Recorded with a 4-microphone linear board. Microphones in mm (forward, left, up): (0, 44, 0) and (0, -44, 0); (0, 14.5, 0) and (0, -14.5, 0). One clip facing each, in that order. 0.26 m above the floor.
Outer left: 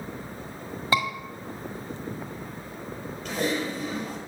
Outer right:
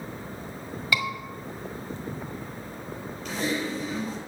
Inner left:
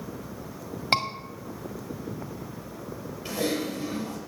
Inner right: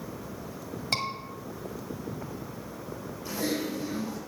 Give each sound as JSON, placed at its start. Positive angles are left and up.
{"t": 0.9, "sound": "a scream", "side_deg": 35, "distance_m": 1.7}
{"t": 3.2, "sound": "typing on a keyboard", "side_deg": 50, "distance_m": 4.5}